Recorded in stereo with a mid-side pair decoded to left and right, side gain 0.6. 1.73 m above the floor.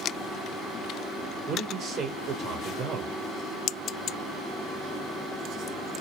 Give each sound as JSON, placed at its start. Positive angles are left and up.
{"t": 1.5, "sound": "a man speaking", "azimuth_deg": -40, "distance_m": 1.1}